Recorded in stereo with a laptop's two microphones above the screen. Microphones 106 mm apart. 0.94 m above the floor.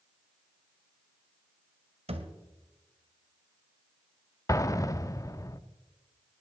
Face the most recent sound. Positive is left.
turn(degrees=30)  # may be behind; listen again after turning